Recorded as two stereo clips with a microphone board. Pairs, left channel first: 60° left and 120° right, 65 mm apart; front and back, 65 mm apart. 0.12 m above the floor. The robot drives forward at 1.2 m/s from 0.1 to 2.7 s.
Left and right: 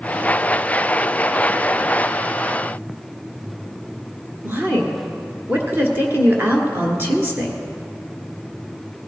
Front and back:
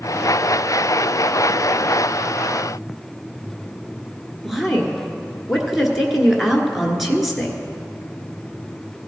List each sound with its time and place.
4.4 s a woman speaking: 95° right, 1.5 m